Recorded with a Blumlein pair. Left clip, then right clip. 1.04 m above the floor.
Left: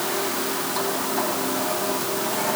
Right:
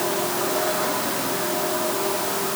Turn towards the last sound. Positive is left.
No sound to turn to.